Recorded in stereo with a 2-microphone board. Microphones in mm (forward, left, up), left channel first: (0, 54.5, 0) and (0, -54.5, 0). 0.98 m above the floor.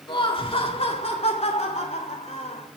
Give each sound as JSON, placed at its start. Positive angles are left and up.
{"t": 0.1, "sound": "laughter", "side_deg": 45, "distance_m": 1.8}